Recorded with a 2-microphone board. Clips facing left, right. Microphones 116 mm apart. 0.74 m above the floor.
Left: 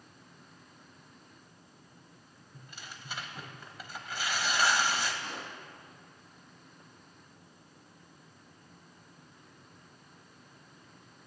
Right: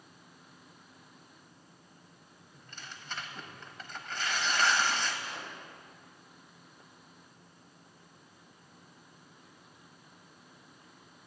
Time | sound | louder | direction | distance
2.5 | tearing paper | even | 10° left (ahead or behind) | 1.2 m
5.2 | a pop | left 1 dB | 65° left (ahead or behind) | 4.5 m